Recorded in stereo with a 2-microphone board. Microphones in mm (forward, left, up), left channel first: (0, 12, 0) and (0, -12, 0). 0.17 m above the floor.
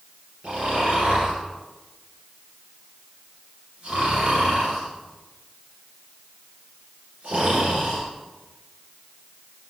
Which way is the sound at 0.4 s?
60° right (ahead or behind).